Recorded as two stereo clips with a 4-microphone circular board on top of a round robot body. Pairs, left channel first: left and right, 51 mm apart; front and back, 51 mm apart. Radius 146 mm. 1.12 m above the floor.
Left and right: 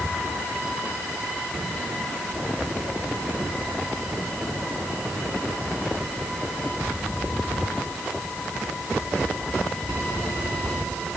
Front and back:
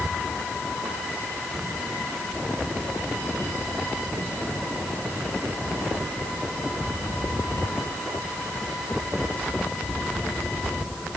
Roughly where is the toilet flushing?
I don't hear a toilet flushing.